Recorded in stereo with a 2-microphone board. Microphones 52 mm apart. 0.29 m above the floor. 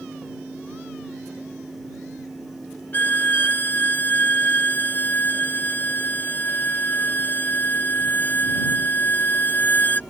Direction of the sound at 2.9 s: 40° left (ahead or behind).